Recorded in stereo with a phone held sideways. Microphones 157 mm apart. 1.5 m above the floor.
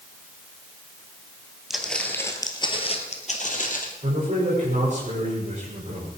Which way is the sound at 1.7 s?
Centre (ahead or behind).